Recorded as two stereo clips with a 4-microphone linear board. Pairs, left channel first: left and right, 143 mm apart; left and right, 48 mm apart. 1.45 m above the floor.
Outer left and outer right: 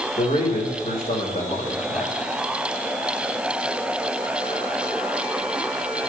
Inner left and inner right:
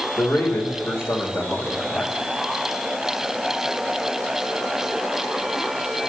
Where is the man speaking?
50° left (ahead or behind), 2.5 m.